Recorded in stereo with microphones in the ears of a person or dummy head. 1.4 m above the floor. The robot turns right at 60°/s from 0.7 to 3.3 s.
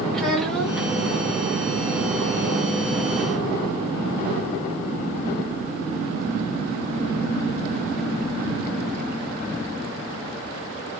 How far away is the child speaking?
About 1.3 m.